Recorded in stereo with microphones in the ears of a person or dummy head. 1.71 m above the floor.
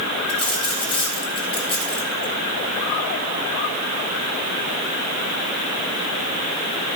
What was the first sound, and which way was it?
A dropped coin, 30° left (ahead or behind).